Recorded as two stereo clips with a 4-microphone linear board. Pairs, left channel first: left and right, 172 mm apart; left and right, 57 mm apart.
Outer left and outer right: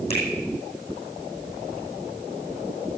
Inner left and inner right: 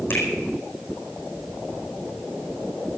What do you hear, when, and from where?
0.1 s a finger snap: 40° left (ahead or behind), 4.5 m